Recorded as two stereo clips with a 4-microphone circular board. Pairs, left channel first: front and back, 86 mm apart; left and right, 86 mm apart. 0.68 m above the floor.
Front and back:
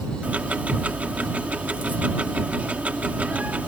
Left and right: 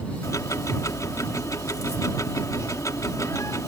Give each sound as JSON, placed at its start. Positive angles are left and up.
{"t": 0.2, "sound": "ticking", "azimuth_deg": 115}